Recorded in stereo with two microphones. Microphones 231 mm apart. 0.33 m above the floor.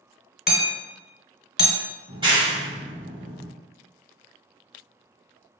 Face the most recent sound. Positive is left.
turn(degrees=-20)  # may be behind; listen again after turning